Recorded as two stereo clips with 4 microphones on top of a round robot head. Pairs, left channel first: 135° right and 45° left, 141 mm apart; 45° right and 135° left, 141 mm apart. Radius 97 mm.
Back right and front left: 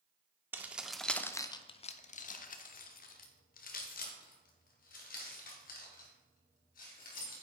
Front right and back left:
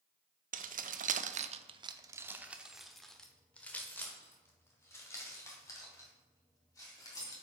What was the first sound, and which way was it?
Keys jangling, 120° left.